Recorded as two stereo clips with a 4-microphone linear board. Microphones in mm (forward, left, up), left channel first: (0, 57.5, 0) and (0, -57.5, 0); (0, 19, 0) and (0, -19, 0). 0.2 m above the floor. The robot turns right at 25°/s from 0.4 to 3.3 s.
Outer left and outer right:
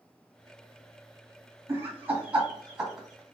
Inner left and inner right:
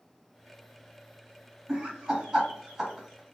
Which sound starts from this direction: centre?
Laughter, at 1.7 s.